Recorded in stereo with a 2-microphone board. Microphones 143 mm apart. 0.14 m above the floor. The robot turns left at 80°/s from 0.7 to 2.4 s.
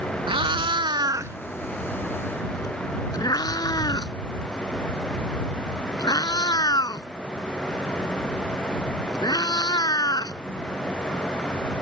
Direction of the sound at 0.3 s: 35° right (ahead or behind).